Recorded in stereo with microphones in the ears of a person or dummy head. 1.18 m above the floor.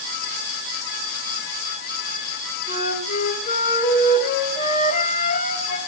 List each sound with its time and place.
2.7 s a flute: 40° left (ahead or behind), 4.5 m